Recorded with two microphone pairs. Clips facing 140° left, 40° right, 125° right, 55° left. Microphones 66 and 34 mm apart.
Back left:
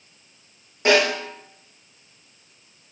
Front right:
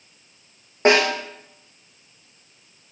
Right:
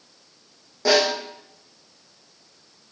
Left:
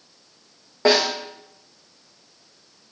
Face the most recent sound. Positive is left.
turn(degrees=10)